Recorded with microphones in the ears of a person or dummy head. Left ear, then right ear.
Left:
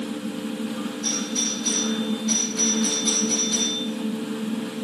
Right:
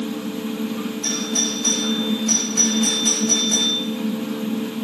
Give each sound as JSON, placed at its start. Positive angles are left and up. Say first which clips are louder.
{"t": 1.0, "sound": "a doorbell", "louder": "right 3 dB", "side_deg": -65, "distance_m": 4.5}